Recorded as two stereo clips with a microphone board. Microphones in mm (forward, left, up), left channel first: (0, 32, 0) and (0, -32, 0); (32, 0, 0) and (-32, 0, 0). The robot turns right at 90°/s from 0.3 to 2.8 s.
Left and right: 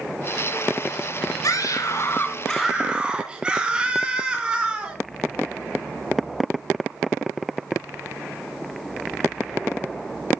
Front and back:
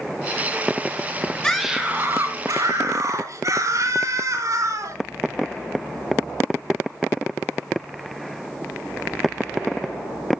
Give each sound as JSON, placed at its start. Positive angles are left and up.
{"t": 1.4, "sound": "a scream", "azimuth_deg": 75, "distance_m": 2.5}